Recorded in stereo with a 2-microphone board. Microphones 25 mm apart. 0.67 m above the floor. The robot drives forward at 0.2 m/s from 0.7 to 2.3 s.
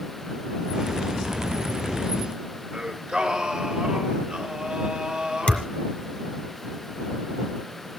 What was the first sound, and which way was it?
Singing, 25° right (ahead or behind).